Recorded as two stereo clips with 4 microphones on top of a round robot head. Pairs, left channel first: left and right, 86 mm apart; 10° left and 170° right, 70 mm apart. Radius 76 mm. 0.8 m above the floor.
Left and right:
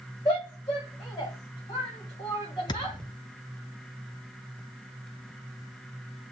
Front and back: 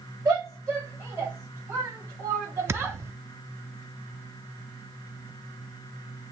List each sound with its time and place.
0.2 s a shout: 145° left, 4 m; by 3.0 s 135° left, 5 m
2.7 s a thud: 135° left, 0.7 m